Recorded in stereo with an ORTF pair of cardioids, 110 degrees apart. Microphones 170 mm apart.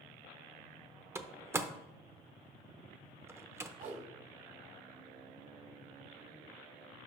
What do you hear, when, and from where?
1.1 s a door slam: 15° right, 0.7 m
3.8 s a whoosh: 70° right, 2.0 m